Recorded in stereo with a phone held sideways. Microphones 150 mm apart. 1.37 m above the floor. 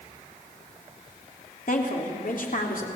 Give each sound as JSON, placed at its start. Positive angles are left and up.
{"t": 1.7, "sound": "a woman speaking", "side_deg": 60, "distance_m": 3.5}